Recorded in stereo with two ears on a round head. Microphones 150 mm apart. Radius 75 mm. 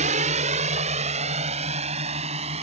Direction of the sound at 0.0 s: 45° right (ahead or behind).